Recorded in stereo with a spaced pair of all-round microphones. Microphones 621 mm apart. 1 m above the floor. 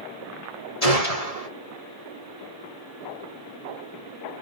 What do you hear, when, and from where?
0.8 s a gunshot: 70° left (ahead or behind), 3 m